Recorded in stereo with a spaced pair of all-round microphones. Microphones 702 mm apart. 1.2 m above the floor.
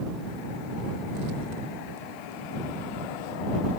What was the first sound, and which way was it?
Only background noise.